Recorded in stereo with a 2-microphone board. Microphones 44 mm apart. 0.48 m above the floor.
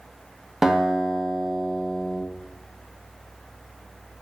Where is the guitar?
10° right (ahead or behind), 0.5 m.